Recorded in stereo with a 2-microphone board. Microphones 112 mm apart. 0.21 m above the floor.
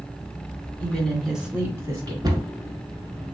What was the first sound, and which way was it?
A woman speaking, 15° left (ahead or behind).